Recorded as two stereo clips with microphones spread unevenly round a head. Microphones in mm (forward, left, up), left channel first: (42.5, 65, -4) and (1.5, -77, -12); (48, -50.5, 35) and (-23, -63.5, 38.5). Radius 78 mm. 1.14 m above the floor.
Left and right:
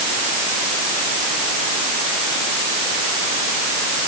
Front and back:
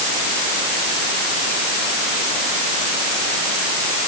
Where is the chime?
I don't hear a chime.